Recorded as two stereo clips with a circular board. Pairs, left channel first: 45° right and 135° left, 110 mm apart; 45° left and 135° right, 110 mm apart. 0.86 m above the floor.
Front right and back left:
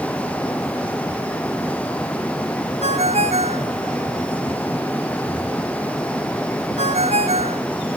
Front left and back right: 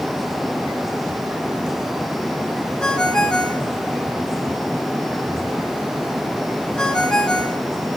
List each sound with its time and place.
2.8 s a ringtone: 125° left, 3 m